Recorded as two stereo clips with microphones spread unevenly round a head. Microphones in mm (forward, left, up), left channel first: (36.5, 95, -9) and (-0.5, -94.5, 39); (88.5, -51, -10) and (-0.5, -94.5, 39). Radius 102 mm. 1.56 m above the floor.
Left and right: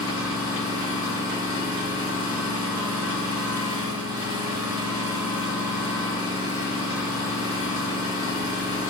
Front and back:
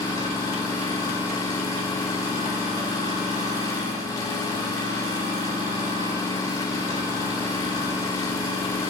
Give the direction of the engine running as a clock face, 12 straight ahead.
1 o'clock.